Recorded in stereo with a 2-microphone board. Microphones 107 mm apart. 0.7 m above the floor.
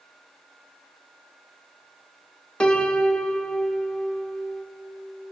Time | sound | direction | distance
2.6 | a piano | 10° left (ahead or behind) | 0.8 m